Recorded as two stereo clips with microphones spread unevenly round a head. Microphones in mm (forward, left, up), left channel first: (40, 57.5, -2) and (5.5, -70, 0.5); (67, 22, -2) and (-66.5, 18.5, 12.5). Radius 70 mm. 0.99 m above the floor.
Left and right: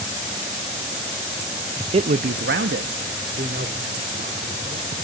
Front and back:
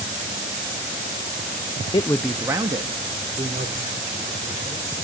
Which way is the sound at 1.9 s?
55° right.